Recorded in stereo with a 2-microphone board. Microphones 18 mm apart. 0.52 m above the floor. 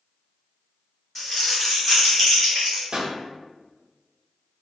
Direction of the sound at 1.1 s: 15° left (ahead or behind).